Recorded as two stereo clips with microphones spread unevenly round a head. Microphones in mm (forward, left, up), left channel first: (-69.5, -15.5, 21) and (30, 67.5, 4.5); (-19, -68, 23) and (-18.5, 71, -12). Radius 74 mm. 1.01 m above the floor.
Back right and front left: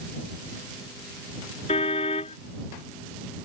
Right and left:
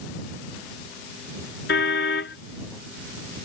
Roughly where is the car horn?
Right.